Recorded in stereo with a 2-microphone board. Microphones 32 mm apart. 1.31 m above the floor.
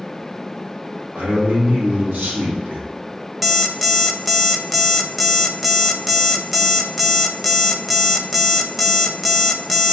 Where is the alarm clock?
5° right (ahead or behind), 0.5 m.